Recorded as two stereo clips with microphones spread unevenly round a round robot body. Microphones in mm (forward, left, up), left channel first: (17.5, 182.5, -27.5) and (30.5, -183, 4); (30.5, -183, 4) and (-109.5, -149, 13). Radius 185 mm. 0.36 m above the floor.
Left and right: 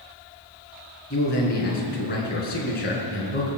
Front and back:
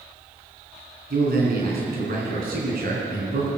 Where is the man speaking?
155° left, 4 m.